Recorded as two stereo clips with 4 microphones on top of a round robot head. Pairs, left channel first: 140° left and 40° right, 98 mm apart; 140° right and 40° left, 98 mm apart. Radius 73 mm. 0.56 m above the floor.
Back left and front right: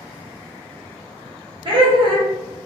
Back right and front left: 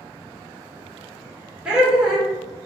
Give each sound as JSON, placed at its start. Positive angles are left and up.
{"t": 1.6, "sound": "laughter", "azimuth_deg": -40, "distance_m": 1.6}